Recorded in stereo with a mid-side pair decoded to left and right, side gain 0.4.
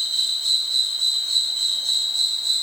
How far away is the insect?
About 7 m.